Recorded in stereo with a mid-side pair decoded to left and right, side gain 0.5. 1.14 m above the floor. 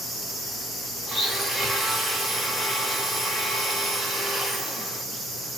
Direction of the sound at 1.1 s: 10° right.